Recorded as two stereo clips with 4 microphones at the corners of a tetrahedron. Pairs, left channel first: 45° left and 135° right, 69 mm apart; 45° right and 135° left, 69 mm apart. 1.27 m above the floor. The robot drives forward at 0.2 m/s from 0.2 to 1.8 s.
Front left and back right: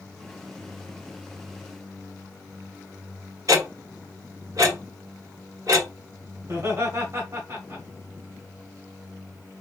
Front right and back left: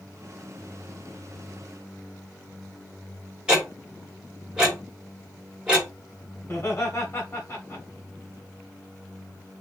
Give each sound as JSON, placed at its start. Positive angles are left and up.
{"t": 3.5, "sound": "ticking", "azimuth_deg": -150, "distance_m": 1.4}
{"t": 6.4, "sound": "laughter", "azimuth_deg": -100, "distance_m": 0.9}